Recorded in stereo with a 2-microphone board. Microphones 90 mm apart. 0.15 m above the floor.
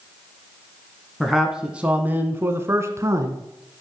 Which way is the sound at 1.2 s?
Centre (ahead or behind).